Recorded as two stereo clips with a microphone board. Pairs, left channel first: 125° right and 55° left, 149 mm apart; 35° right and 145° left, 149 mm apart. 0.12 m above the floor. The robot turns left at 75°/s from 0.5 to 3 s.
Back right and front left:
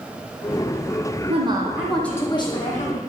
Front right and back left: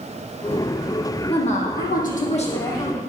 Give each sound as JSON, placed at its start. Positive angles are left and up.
{"t": 1.3, "sound": "a woman speaking", "azimuth_deg": 15, "distance_m": 3.0}